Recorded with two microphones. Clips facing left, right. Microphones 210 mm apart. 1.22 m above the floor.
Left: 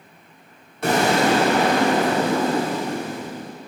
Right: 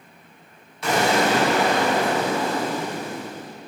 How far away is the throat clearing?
No throat clearing in this recording.